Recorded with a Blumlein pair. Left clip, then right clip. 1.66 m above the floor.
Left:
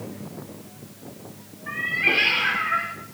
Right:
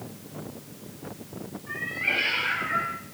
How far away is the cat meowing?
About 3 m.